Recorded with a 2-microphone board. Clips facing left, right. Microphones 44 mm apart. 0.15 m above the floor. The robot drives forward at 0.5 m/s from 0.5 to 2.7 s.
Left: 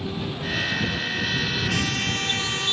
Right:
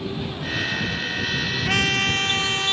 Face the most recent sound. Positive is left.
turn(degrees=-35)  # may be behind; listen again after turning